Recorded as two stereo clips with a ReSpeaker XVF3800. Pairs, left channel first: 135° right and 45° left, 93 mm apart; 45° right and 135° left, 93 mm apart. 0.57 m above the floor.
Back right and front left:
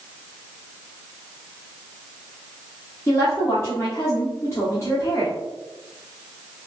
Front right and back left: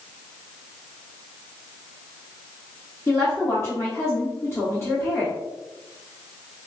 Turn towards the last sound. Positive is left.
turn(degrees=-90)